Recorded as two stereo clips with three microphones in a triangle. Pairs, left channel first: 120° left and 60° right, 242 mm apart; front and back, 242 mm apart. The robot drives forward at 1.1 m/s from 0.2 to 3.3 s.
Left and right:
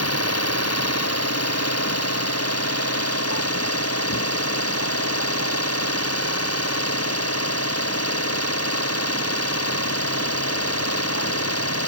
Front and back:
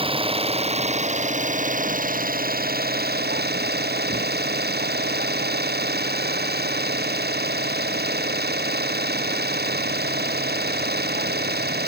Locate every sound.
0.0 s an engine running: 110° left; by 11.9 s 130° left